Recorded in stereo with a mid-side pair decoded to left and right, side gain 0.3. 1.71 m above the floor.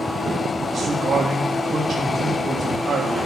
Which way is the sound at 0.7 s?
60° right.